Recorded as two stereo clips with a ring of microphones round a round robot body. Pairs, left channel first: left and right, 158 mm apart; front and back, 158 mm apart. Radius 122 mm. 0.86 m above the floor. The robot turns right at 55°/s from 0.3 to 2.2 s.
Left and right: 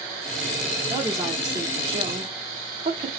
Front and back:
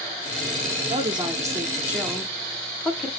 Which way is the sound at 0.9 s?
155° right.